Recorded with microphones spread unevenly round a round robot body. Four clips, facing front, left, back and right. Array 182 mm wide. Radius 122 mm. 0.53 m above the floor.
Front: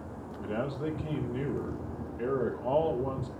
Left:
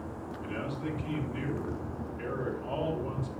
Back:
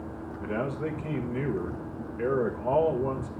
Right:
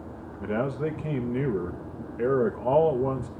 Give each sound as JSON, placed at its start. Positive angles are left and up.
{"t": 0.4, "sound": "a man speaking", "azimuth_deg": -105, "distance_m": 1.5}